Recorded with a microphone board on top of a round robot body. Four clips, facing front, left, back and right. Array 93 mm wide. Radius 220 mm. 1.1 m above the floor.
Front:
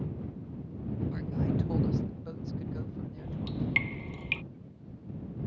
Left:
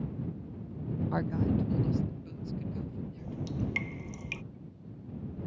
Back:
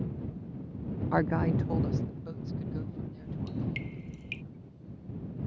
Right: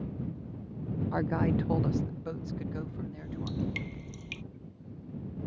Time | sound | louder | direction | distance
1.1 | a woman speaking | right 2 dB, back 7 dB | 175° left | ?
3.2 | dripping | right 1 dB, front 2 dB | 25° left | ?